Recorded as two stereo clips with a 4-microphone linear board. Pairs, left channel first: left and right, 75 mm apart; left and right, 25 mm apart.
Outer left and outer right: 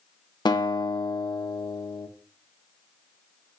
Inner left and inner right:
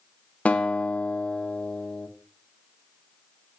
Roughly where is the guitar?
Left.